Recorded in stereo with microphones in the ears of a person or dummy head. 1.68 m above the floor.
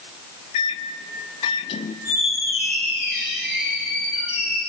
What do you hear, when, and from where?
0.5 s a microwave: 25° left (ahead or behind), 0.6 m
2.0 s a squeak: centre (ahead or behind), 2.5 m